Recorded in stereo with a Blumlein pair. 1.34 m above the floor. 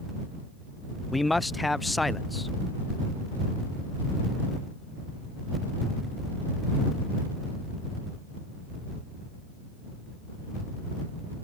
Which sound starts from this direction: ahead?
A man speaking, at 1.1 s.